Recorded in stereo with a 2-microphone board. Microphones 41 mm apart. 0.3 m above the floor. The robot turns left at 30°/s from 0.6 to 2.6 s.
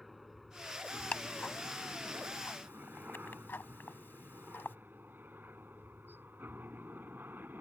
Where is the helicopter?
Centre (ahead or behind); by 7.6 s 60° right (ahead or behind).